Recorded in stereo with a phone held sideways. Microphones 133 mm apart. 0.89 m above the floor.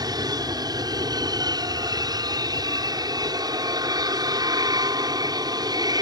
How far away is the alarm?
No alarm in this recording.